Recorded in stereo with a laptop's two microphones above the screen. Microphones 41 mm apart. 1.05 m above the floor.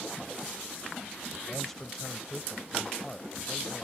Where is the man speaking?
10° left (ahead or behind).